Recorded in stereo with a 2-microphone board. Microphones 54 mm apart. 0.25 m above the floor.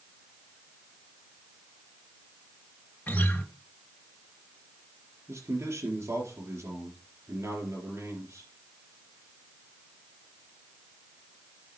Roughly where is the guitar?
Left.